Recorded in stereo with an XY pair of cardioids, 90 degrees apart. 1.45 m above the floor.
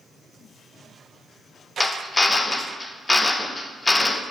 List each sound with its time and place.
1.8 s a drill: 20° left, 0.7 m